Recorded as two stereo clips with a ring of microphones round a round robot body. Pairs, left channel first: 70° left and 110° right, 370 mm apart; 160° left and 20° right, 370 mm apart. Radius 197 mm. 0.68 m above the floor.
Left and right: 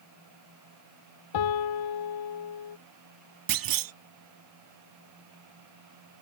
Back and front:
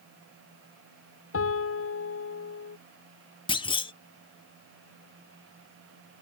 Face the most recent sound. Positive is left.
turn(degrees=-125)